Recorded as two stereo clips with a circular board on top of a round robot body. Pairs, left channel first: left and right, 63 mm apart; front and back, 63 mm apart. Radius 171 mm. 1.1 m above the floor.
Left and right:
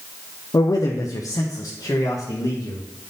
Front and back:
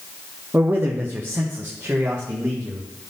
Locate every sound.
0.5 s a man speaking: 120° left, 0.6 m; by 2.8 s 115° left, 1.7 m